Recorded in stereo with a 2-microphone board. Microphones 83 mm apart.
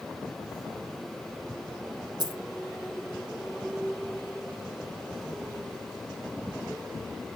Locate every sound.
2.2 s a dropped coin: 55° right (ahead or behind), 1.1 m